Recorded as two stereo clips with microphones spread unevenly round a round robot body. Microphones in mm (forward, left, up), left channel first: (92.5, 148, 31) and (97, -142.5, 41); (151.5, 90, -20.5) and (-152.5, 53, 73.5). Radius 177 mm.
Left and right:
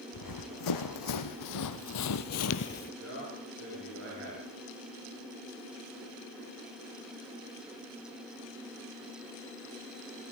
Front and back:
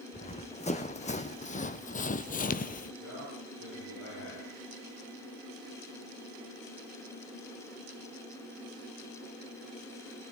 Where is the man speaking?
45° right, 10 m.